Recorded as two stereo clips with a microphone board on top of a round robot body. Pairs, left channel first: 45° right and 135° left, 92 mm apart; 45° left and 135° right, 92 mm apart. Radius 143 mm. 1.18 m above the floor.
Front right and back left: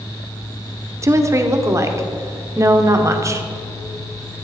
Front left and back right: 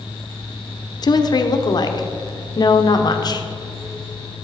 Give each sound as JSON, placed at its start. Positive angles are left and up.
{"t": 1.0, "sound": "a woman speaking", "azimuth_deg": 80, "distance_m": 1.1}